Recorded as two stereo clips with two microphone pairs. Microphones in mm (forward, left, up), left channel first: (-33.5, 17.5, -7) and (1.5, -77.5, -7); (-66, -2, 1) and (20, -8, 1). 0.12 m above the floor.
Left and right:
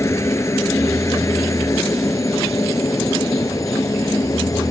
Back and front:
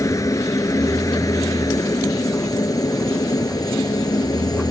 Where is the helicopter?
155° left.